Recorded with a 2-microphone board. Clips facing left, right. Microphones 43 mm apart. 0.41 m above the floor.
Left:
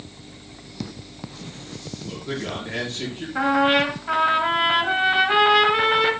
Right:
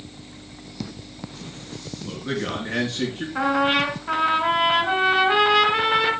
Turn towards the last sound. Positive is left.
turn(degrees=0)  # may be behind; listen again after turning